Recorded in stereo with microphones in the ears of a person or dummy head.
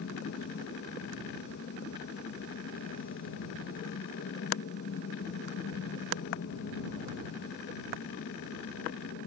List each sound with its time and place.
0.0 s an aircraft: 55° left (ahead or behind)